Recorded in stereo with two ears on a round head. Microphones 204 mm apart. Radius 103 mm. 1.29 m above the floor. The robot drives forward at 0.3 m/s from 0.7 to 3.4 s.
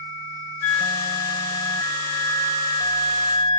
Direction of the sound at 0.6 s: 60° left (ahead or behind).